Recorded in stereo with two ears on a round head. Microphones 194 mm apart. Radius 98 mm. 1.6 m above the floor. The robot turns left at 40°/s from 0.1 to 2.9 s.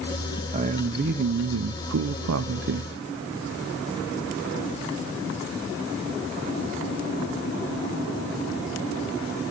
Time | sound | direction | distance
0.5 | a man speaking | 30° right | 0.6 m